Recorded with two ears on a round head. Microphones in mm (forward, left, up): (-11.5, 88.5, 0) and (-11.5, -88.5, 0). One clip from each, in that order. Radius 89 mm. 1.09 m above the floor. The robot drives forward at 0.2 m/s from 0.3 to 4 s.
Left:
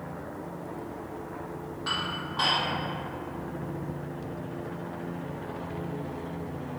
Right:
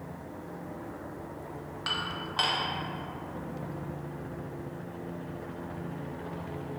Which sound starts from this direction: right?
Dishes clattering, at 1.9 s.